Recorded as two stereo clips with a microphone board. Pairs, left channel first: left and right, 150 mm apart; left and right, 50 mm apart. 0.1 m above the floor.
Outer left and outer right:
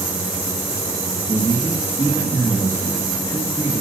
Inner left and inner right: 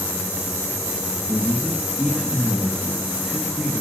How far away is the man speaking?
About 4 m.